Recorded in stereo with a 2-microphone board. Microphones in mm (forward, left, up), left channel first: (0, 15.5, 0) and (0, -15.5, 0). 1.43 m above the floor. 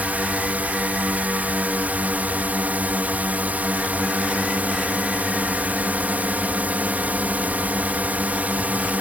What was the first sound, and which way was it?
A drone, 65° right (ahead or behind).